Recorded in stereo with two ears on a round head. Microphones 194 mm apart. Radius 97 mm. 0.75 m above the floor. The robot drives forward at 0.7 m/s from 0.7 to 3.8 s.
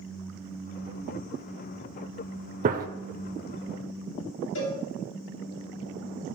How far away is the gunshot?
About 0.6 m.